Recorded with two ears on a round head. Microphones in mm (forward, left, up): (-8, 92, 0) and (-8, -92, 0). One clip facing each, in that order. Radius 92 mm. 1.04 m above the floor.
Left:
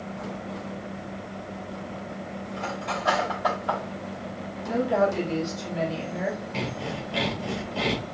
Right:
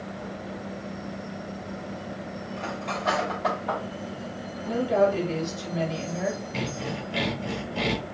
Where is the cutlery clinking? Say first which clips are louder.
Left 1 dB; 5° left (ahead or behind), 4 m.